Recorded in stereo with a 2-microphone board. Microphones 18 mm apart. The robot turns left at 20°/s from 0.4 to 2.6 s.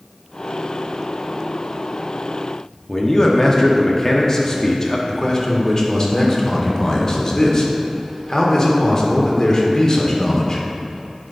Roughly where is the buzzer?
No buzzer in this recording.